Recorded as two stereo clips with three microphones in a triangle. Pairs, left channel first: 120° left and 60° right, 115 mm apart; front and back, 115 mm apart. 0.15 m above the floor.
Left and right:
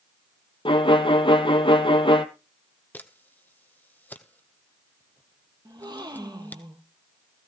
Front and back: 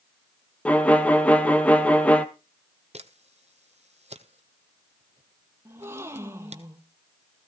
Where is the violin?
80° left, 0.9 m.